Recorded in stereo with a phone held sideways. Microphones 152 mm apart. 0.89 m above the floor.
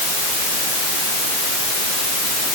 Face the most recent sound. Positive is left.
No sound to turn to.